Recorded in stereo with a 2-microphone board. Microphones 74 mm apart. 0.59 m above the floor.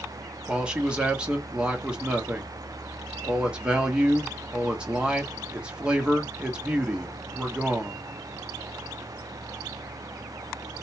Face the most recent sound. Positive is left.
turn(degrees=-15)  # may be behind; listen again after turning